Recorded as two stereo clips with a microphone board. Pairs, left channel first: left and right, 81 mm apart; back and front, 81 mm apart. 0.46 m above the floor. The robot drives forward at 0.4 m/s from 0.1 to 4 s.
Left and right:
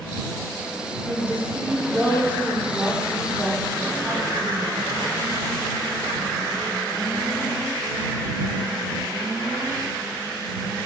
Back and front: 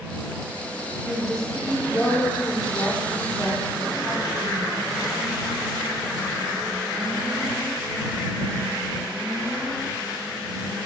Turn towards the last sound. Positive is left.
turn(degrees=-160)